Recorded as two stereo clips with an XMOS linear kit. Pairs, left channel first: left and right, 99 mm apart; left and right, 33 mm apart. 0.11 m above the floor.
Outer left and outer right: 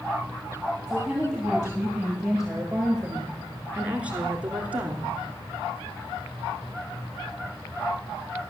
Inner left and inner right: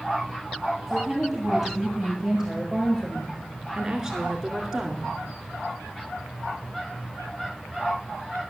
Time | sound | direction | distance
0.9 | a woman speaking | 5° right (ahead or behind) | 2.5 m